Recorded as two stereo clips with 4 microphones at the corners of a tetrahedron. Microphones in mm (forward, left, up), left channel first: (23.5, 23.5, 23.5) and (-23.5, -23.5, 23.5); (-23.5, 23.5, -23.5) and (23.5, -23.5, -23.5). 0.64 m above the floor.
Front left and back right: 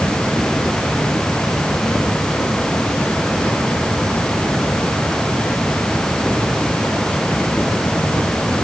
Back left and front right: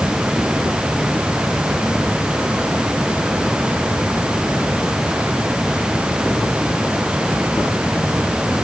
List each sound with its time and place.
Only background noise.